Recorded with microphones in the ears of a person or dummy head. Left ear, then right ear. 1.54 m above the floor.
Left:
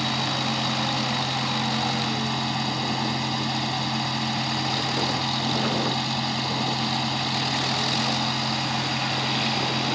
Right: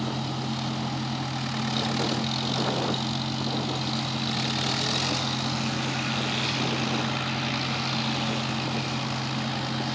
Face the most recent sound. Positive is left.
turn(degrees=65)  # may be behind; listen again after turning